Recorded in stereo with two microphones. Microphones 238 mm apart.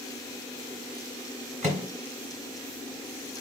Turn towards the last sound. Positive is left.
turn(degrees=-25)  # may be behind; listen again after turning